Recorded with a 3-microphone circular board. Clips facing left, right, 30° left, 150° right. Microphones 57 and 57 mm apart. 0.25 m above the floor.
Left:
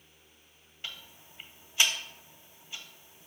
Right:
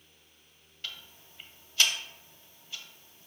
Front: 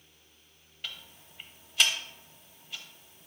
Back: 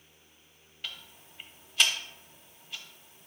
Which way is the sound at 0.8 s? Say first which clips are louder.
Even, even; 115° left.